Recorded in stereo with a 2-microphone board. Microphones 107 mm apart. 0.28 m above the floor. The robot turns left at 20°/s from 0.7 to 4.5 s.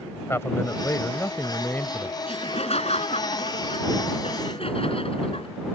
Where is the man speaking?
25° left (ahead or behind); by 2.1 s 15° left (ahead or behind).